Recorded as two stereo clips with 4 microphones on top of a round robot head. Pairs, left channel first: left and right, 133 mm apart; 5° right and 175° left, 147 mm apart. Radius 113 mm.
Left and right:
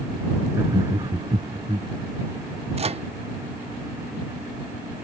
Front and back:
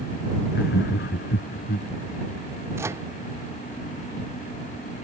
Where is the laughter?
15° right; by 1.9 s 30° right.